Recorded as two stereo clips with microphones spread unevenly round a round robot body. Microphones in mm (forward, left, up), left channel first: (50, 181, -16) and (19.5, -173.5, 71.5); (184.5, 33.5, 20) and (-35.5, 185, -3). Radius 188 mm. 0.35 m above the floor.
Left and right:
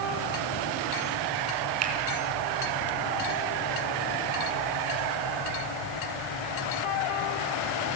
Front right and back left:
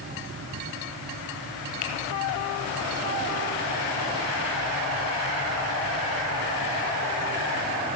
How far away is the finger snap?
About 4 m.